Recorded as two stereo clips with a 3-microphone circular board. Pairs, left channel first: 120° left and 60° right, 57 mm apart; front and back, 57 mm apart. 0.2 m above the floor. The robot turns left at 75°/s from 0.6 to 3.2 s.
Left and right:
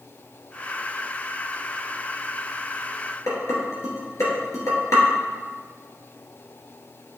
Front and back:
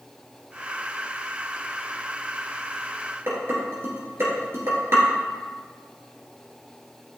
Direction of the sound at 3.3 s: 145° left.